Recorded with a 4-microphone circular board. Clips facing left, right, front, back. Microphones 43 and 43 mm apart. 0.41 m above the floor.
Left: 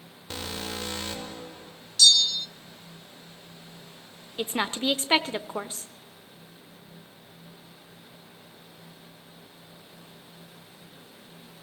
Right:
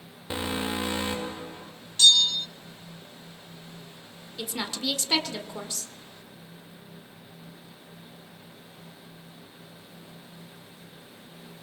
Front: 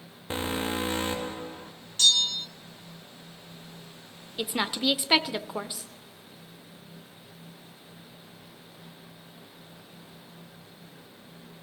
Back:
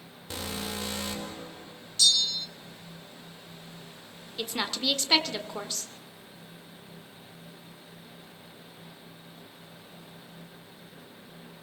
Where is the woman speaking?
70° left, 1.0 m.